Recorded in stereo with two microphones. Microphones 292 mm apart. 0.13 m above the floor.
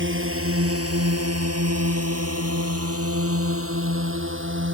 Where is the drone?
45° right (ahead or behind).